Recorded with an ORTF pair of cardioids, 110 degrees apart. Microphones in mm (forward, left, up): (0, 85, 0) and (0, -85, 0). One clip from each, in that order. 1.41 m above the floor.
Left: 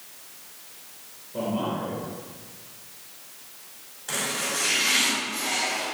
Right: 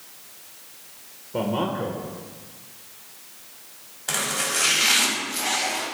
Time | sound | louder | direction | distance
1.3 | a man speaking | right 3 dB | 60° right | 1.6 m
4.1 | chopping | right 3 dB | 45° right | 3.5 m